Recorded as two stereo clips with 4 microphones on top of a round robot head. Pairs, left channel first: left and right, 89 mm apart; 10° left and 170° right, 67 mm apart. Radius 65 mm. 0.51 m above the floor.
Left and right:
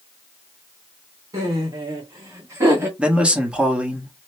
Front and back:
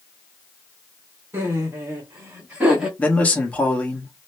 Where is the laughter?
125° right, 2.0 m; by 2.9 s 105° right, 1.3 m.